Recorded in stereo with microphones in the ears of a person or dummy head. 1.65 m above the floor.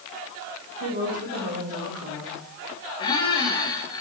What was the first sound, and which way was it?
A woman speaking, 70° right (ahead or behind).